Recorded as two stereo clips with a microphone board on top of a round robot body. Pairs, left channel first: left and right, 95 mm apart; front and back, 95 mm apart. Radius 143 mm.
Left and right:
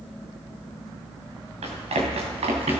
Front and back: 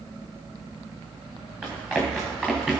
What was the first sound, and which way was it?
Running footsteps, 105° right.